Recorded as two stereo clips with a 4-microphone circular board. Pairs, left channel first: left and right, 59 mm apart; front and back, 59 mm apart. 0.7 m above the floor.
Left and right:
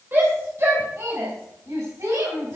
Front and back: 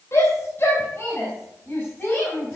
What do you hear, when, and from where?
0.1 s a shout: 40° right, 3 m; by 2.6 s 70° right, 4.5 m